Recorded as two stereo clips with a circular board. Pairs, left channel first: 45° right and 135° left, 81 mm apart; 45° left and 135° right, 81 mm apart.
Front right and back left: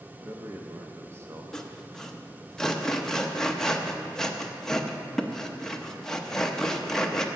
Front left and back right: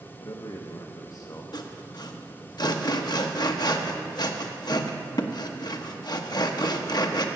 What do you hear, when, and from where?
0.2 s a man speaking: 80° left, 0.8 m
1.5 s sawing: 40° left, 0.8 m